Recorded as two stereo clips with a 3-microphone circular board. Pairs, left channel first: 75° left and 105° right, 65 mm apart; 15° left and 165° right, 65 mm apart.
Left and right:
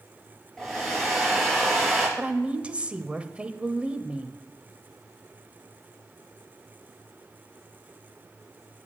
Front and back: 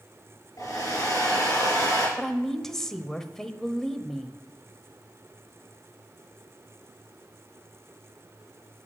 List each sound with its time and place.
0.6 s a hair dryer: 10° right, 6 m
2.2 s a woman speaking: 60° right, 0.9 m